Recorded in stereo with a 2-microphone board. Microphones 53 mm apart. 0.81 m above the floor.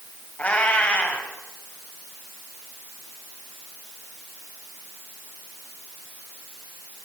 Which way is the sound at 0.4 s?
30° left (ahead or behind).